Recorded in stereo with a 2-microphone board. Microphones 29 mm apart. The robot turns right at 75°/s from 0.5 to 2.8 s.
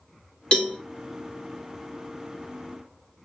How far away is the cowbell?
About 0.9 m.